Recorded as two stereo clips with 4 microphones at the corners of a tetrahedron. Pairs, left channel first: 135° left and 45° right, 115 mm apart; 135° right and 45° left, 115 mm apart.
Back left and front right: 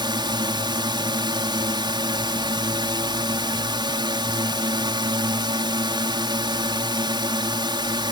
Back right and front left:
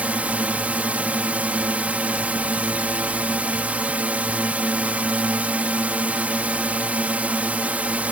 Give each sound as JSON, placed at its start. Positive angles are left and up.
{"t": 0.0, "sound": "a drone", "azimuth_deg": -25}